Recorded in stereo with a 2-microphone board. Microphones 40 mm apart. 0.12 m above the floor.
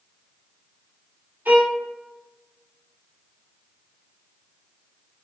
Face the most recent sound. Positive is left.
turn(degrees=-60)  # may be behind; listen again after turning